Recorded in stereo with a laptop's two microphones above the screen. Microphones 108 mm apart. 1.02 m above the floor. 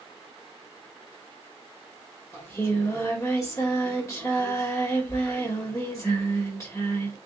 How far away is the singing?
About 1.6 m.